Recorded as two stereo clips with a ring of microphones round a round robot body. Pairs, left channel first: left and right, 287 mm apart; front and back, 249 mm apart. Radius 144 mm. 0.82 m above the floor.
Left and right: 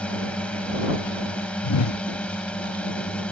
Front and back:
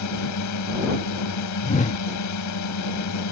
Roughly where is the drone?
Ahead.